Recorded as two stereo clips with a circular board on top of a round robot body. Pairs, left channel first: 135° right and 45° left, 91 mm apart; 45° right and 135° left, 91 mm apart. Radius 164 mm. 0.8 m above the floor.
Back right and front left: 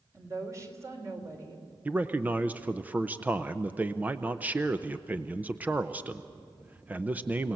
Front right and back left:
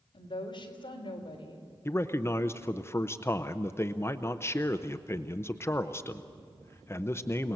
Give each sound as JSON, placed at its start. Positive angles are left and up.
{"t": 0.1, "sound": "a woman speaking", "azimuth_deg": -10, "distance_m": 3.0}
{"t": 1.9, "sound": "a man speaking", "azimuth_deg": -10, "distance_m": 0.9}